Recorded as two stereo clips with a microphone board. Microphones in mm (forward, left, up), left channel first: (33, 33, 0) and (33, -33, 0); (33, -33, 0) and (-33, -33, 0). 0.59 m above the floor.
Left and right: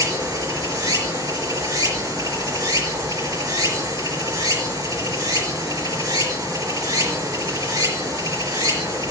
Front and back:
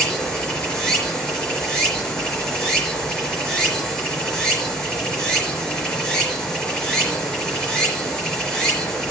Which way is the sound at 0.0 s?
85° right.